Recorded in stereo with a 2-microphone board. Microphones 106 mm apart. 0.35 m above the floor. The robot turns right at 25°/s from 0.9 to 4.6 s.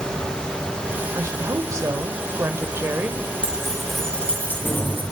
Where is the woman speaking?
95° right, 1.2 m; by 3.3 s 45° right, 1.2 m.